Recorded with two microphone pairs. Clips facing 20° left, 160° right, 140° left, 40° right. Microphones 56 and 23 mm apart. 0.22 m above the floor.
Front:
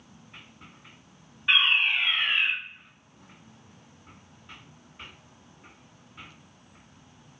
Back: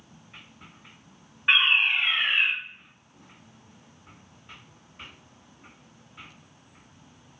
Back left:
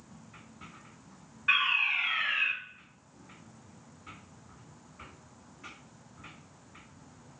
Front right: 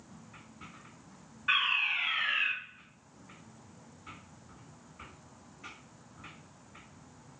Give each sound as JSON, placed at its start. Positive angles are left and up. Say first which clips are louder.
{"t": 1.5, "sound": "a fire alarm", "louder": "back 1 dB, back left 2 dB", "azimuth_deg": -140, "distance_m": 1.9}